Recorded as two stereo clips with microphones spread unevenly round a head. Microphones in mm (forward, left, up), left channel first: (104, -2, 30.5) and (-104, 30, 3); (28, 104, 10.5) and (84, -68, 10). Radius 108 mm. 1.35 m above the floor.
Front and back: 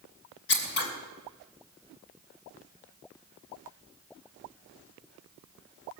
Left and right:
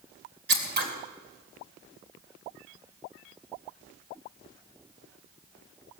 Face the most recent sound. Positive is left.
turn(degrees=-45)